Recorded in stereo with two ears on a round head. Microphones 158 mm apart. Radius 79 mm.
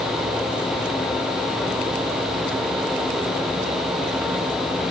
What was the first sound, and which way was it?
Only background noise.